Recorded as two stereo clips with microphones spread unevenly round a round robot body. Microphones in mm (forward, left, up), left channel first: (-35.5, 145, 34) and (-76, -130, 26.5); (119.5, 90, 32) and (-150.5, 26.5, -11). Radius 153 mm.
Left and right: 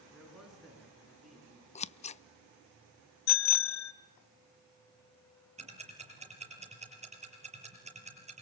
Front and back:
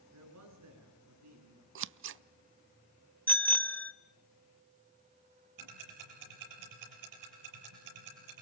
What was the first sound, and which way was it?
A man speaking, 170° left.